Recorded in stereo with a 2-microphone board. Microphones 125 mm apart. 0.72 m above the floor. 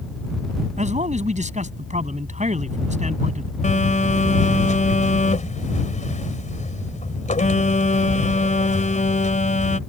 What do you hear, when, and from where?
0.8 s a man speaking: 70° right (ahead or behind)
3.6 s a phone buzzing: 75° left (ahead or behind)